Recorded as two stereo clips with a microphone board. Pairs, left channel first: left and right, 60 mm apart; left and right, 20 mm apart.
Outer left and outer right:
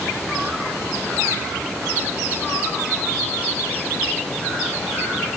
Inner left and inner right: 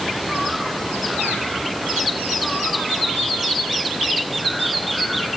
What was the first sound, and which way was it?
Only background noise.